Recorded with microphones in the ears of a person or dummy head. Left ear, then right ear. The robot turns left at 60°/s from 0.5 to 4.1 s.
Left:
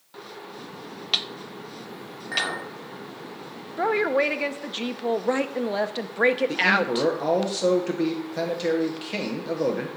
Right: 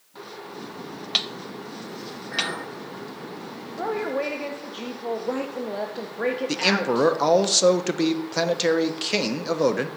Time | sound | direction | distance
2.3 | a clink | 70° left (ahead or behind) | 1.6 m
3.8 | a woman speaking | 55° left (ahead or behind) | 0.5 m
6.5 | a man speaking | 30° right (ahead or behind) | 0.6 m